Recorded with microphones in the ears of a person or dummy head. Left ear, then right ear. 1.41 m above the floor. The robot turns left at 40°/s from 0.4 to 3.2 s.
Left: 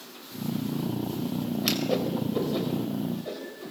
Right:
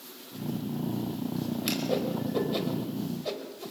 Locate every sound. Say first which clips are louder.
1.6 s a whoosh: left 3 dB; 15° left (ahead or behind), 4 m; by 3.7 s 45° right (ahead or behind), 4 m